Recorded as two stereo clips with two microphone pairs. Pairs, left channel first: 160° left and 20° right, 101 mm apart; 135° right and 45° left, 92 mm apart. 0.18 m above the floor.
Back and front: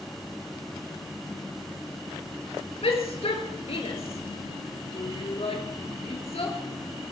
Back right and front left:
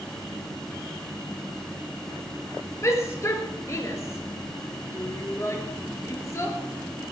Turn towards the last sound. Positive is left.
turn(degrees=165)